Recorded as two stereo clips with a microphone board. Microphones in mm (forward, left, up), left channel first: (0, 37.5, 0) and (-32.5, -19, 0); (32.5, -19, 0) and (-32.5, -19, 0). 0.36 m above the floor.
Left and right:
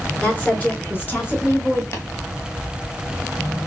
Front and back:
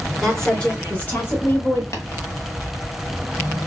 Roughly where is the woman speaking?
Left.